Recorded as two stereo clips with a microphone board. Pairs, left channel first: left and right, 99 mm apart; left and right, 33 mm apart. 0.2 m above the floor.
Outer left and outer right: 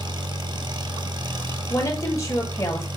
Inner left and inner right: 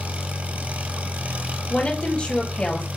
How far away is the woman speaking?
About 3 m.